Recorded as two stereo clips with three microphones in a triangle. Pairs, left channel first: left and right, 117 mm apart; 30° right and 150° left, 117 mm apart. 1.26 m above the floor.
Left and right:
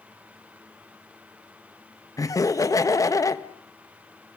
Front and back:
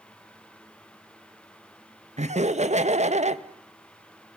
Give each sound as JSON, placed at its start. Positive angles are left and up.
{"t": 2.2, "sound": "laughter", "azimuth_deg": 150, "distance_m": 1.3}